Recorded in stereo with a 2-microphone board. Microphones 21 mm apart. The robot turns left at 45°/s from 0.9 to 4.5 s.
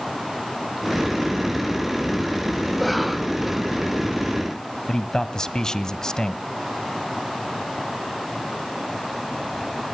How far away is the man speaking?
About 1.4 m.